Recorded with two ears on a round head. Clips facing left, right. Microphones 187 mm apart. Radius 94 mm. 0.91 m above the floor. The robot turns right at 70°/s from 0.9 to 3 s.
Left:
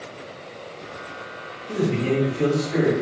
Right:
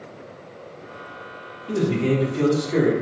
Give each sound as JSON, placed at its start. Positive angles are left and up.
{"t": 1.7, "sound": "a man speaking", "azimuth_deg": -115, "distance_m": 1.7}